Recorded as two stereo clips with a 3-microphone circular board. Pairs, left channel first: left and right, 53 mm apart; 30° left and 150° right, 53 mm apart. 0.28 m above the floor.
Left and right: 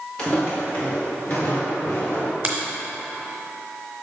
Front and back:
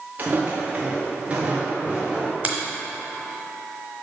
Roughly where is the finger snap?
Behind right.